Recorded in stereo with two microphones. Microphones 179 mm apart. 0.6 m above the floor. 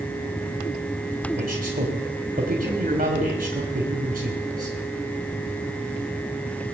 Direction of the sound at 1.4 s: 55° right (ahead or behind).